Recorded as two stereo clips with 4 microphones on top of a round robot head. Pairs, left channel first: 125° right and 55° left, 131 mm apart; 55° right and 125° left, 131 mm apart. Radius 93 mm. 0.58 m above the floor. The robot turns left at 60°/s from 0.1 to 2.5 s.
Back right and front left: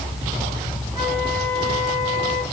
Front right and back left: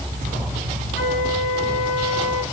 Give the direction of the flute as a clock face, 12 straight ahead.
12 o'clock.